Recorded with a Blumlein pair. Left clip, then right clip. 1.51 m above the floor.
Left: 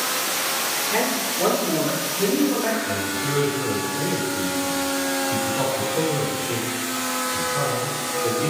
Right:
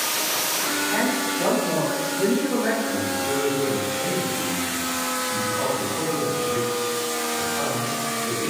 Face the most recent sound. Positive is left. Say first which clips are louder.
# even
turn(degrees=35)